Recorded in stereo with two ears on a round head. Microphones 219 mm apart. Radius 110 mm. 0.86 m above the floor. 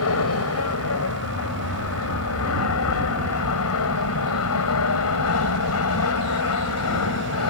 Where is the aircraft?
60° left (ahead or behind); by 7.5 s 65° left (ahead or behind).